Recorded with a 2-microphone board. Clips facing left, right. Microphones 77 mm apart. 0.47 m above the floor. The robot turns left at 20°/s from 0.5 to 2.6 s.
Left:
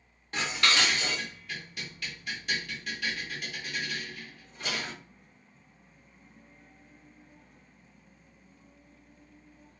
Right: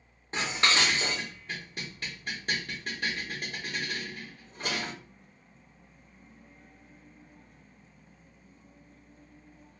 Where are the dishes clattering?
25° right (ahead or behind), 0.7 m; by 4.9 s 40° right (ahead or behind), 0.7 m.